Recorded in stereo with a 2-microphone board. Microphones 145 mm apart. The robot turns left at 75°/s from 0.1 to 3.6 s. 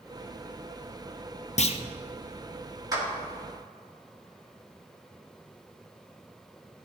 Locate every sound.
1.6 s a clunk: 50° left (ahead or behind), 0.6 m; by 1.8 s 35° left (ahead or behind), 0.6 m
2.9 s a clap: 25° right (ahead or behind), 2.5 m; by 3.1 s 35° right (ahead or behind), 2.5 m